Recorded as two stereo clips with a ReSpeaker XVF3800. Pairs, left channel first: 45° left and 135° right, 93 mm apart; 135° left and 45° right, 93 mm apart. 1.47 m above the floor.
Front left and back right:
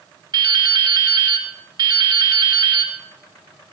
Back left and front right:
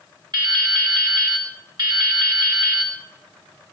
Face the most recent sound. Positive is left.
turn(degrees=-90)